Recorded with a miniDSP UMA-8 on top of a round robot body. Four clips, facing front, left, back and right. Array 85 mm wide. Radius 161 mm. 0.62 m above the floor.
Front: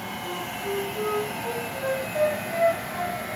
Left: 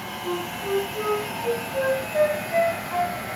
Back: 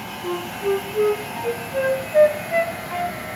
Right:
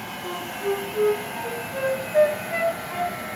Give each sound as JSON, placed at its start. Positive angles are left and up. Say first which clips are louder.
{"t": 0.2, "sound": "a flute", "louder": "right 1 dB, back 9 dB", "azimuth_deg": -160, "distance_m": 8.5}